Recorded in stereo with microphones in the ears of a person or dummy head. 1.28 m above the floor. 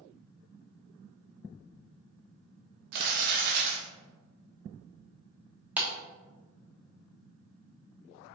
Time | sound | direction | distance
2.9 | crumpling | 55° right (ahead or behind) | 1.2 m
5.8 | a clap | 5° right (ahead or behind) | 0.8 m